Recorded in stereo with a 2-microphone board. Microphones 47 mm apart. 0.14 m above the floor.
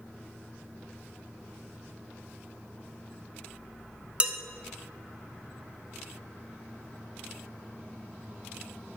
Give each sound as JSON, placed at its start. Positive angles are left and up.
{"t": 4.2, "sound": "dishes clattering", "side_deg": -25, "distance_m": 0.9}